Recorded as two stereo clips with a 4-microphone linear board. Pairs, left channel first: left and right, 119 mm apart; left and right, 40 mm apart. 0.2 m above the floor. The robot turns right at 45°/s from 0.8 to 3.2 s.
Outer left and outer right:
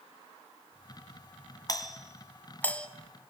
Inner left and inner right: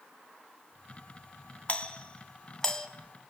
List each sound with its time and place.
1.7 s a doorbell: 30° left (ahead or behind), 2.5 m; by 2.9 s 10° left (ahead or behind), 2.5 m